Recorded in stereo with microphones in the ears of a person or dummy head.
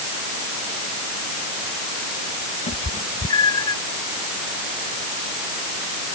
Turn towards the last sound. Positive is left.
turn(degrees=30)  # may be behind; listen again after turning